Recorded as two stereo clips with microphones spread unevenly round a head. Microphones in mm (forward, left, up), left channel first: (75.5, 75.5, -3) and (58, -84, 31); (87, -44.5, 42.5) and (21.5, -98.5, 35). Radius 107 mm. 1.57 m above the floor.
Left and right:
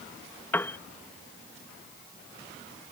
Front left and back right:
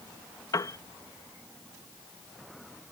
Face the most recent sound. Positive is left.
turn(degrees=0)